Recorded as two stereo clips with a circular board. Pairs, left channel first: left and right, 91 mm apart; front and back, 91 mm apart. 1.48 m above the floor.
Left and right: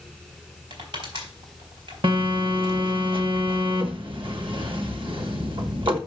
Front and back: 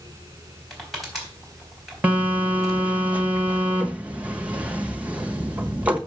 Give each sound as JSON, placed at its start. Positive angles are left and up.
{"t": 0.7, "sound": "crushing", "azimuth_deg": -90, "distance_m": 3.5}
{"t": 2.0, "sound": "a phone buzzing", "azimuth_deg": -105, "distance_m": 1.2}